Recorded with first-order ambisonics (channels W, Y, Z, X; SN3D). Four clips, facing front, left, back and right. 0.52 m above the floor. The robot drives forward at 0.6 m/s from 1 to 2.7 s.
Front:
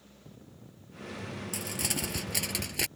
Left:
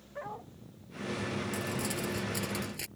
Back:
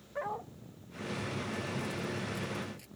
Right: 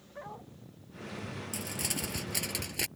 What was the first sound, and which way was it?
A dog barking, 170° left.